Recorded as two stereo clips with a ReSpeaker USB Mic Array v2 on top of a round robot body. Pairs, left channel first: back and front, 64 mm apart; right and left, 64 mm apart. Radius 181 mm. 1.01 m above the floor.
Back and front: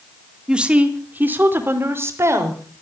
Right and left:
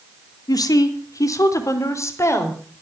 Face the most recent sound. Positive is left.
turn(degrees=-40)